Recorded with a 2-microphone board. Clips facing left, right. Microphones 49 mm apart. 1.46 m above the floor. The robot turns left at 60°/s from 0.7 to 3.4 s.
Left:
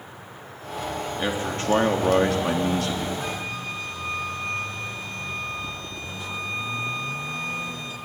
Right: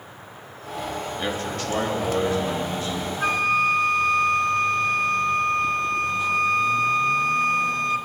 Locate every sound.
1.2 s a man speaking: 170° left, 3.5 m; by 3.1 s 55° left, 3.5 m
3.2 s a flute: 60° right (ahead or behind), 1.4 m; by 8.0 s 70° right (ahead or behind), 1.4 m